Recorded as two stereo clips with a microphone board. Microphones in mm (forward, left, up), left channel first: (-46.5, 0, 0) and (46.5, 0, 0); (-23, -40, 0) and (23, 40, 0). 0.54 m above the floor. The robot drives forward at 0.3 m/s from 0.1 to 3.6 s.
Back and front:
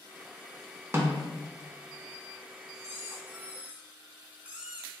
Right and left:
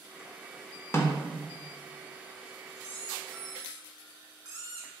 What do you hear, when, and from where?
0.9 s a snare drum: 60° right, 0.5 m; by 1.3 s 75° right, 0.5 m
2.7 s a squeak: 40° left, 0.9 m; by 4.9 s 65° left, 0.7 m